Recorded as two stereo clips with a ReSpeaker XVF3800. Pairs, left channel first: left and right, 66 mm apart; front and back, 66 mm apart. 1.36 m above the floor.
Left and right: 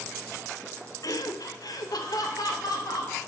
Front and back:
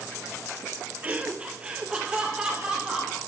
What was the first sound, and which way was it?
Laughter, 115° left.